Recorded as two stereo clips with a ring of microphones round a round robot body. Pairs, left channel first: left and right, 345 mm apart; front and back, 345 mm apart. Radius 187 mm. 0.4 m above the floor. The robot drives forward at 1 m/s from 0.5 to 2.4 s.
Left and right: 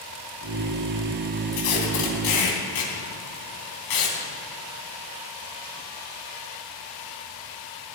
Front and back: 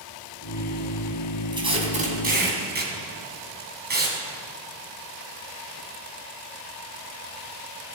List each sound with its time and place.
1.5 s tape being pulled: 105° left, 3 m; by 4.2 s 120° left, 3.5 m